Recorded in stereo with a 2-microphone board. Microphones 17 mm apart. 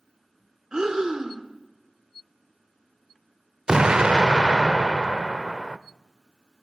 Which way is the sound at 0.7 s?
50° right (ahead or behind).